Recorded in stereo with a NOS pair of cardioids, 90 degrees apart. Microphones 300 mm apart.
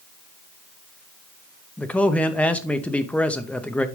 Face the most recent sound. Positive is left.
turn(degrees=5)